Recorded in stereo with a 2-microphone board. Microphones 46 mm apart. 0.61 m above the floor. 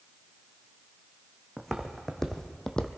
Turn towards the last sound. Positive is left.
turn(degrees=15)  # may be behind; listen again after turning